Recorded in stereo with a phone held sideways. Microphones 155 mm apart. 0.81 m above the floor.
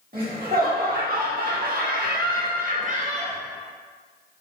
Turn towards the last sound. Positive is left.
turn(degrees=-35)  # may be behind; listen again after turning